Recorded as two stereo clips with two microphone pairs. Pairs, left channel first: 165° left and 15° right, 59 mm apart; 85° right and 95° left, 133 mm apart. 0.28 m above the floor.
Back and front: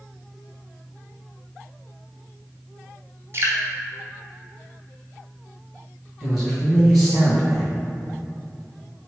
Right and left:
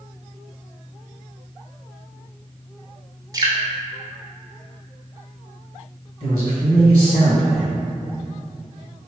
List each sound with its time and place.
3.3 s dripping: 35° left, 0.9 m
6.2 s a man speaking: 110° right, 1.8 m